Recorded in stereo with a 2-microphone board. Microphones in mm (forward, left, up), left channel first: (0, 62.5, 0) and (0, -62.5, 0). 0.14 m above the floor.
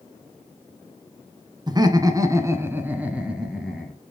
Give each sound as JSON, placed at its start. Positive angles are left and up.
{"t": 1.7, "sound": "laughter", "side_deg": -30, "distance_m": 1.2}